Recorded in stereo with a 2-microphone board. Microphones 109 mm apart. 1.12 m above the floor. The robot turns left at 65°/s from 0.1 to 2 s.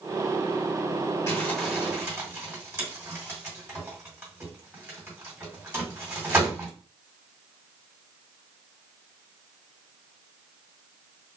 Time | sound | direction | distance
1.3 | crumpling | 30° left (ahead or behind) | 2.5 m